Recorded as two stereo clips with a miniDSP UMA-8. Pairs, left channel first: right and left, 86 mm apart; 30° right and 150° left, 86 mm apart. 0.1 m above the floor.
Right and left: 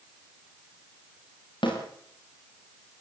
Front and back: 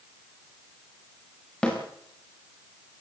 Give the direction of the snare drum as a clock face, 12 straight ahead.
4 o'clock.